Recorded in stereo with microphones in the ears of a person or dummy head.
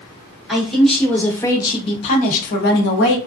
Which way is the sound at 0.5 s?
5° right (ahead or behind).